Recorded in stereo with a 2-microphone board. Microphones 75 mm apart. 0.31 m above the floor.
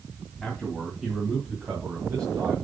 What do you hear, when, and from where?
0.4 s a man speaking: 10° left (ahead or behind), 2.5 m; by 2.6 s 45° right (ahead or behind), 2.5 m